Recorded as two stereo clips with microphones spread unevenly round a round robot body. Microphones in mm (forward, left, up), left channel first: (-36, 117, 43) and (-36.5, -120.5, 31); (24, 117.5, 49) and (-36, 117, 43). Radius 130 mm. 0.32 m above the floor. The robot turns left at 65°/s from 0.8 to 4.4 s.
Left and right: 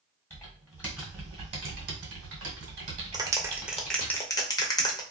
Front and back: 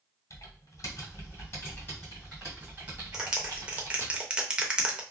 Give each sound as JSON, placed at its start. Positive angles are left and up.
{"t": 0.3, "sound": "typing on a keyboard", "azimuth_deg": 10, "distance_m": 1.4}
{"t": 3.1, "sound": "a clap", "azimuth_deg": -130, "distance_m": 0.6}